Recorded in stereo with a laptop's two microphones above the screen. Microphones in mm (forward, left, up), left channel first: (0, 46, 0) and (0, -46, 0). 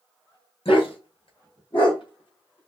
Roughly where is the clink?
No clink in this recording.